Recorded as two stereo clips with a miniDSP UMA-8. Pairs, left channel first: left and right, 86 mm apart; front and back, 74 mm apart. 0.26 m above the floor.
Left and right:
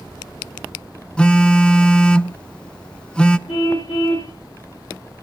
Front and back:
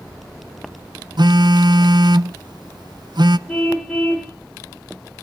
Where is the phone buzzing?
170° left, 0.8 m.